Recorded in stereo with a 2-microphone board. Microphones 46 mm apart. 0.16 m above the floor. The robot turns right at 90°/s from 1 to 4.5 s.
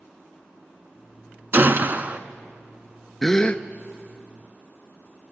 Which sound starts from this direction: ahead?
A gasp, at 3.2 s.